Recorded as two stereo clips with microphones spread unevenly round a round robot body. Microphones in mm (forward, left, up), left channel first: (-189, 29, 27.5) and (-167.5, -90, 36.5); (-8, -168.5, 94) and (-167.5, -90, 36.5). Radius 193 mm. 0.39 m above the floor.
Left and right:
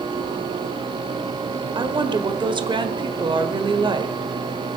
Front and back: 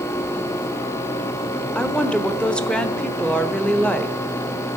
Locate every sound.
1.8 s a woman speaking: 125° right, 1.3 m